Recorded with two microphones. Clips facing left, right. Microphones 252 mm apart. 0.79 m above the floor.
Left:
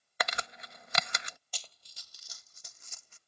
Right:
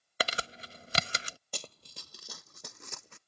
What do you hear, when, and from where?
0.2 s crumpling: 35° right (ahead or behind)
1.5 s running footsteps: 60° right (ahead or behind); by 3.2 s 75° right (ahead or behind)